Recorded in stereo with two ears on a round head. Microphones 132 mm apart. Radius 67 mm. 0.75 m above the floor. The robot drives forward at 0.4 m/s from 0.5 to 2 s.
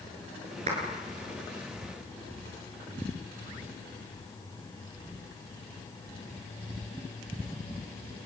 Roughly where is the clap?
Right.